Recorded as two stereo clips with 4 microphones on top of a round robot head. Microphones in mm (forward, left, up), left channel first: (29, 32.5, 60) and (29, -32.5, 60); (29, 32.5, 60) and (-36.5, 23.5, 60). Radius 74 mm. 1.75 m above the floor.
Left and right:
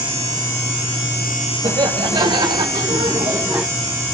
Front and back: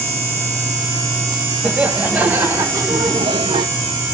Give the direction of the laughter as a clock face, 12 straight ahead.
3 o'clock.